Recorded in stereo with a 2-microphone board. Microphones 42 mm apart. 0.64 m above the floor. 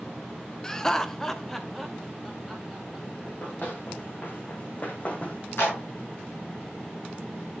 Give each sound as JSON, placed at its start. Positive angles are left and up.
{"t": 0.6, "sound": "laughter", "side_deg": 15, "distance_m": 0.8}
{"t": 3.2, "sound": "running footsteps", "side_deg": 50, "distance_m": 3.5}
{"t": 5.6, "sound": "a clap", "side_deg": 75, "distance_m": 5.5}